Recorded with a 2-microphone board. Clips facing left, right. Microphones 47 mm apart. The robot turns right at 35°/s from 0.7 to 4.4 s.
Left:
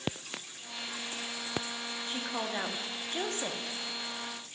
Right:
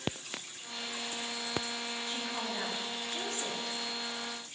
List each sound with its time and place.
2.1 s a woman speaking: 35° left, 1.3 m; by 3.6 s 90° left, 1.3 m